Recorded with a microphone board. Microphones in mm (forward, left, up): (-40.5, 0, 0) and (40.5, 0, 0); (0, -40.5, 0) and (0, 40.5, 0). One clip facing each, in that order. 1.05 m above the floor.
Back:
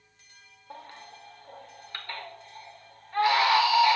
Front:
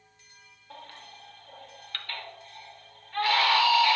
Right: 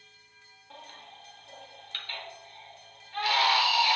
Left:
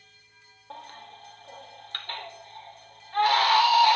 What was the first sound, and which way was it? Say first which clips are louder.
A baby crying: back 2 dB, left 5 dB; 115° left.